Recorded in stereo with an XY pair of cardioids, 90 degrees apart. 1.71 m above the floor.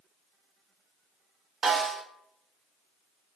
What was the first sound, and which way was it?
A snare drum, 60° right.